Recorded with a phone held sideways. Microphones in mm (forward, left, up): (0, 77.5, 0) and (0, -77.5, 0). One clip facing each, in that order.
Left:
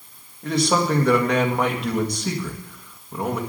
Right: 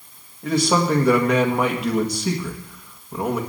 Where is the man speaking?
5° right (ahead or behind), 1.7 m.